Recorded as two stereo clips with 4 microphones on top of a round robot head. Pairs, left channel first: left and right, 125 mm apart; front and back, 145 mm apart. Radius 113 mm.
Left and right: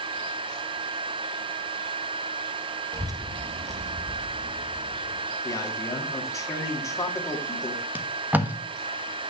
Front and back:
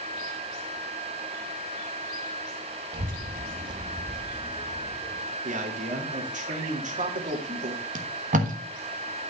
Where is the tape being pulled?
165° right, 1.3 m.